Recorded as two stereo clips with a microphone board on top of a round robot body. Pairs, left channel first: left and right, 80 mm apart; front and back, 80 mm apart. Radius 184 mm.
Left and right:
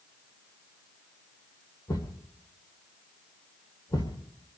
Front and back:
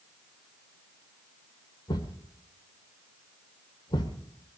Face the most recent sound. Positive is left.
turn(degrees=40)